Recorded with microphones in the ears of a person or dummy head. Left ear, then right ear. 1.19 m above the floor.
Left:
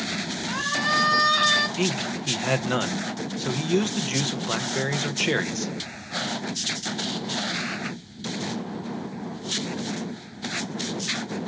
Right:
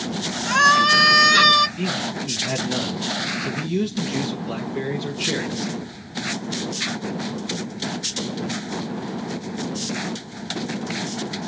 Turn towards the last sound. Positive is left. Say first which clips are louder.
# right 1 dB
turn(degrees=50)  # may be behind; listen again after turning